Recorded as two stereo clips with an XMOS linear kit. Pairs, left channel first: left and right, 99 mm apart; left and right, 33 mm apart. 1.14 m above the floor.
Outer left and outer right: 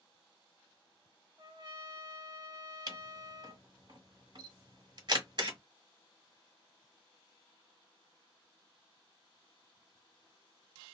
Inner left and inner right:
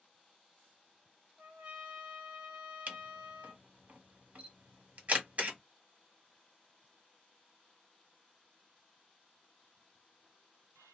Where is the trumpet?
45° right (ahead or behind), 1.5 m.